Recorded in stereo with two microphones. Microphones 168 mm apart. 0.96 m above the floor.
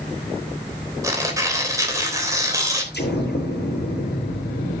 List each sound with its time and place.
1.0 s tearing paper: 20° right (ahead or behind), 3 m
2.9 s an explosion: 70° left (ahead or behind), 6.5 m